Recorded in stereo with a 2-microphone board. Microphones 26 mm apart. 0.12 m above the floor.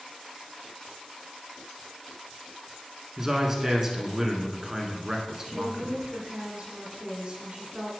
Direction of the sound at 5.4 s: 30° right (ahead or behind).